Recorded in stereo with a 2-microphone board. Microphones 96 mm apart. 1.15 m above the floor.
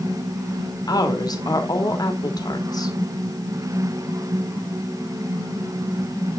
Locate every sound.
0.9 s a woman speaking: 45° left (ahead or behind), 2 m